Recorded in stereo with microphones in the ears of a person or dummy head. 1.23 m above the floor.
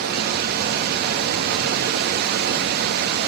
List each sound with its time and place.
0.0 s running water: 55° right (ahead or behind), 1.8 m